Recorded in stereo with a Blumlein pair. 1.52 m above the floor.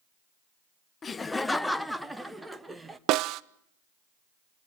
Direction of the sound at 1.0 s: 20° left.